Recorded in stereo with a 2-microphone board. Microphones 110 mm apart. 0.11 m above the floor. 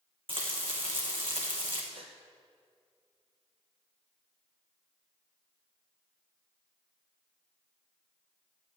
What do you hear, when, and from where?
0.3 s frying: 55° right (ahead or behind), 3 m
1.9 s a gasp: 60° right (ahead or behind), 2 m